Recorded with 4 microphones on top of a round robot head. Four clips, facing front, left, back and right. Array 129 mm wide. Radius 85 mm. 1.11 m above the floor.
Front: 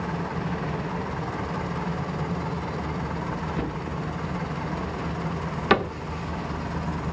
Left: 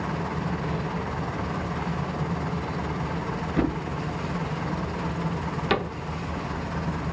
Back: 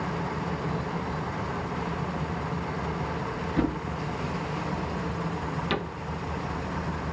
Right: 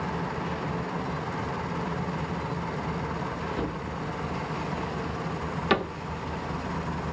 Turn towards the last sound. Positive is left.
turn(degrees=0)